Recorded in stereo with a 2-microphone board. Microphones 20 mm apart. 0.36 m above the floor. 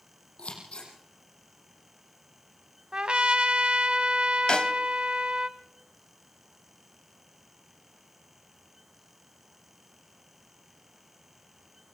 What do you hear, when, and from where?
0.4 s scissors: 70° left (ahead or behind), 8 m
2.9 s a trumpet: 55° right (ahead or behind), 1.2 m
4.5 s a snare drum: 45° left (ahead or behind), 1.2 m